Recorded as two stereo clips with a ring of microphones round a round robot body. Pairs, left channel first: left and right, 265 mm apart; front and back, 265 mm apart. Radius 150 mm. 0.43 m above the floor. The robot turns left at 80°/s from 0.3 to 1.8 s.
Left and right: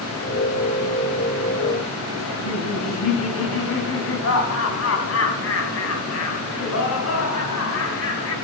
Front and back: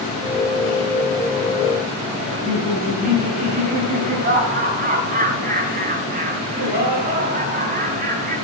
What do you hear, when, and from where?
2.2 s laughter: 120° left, 4 m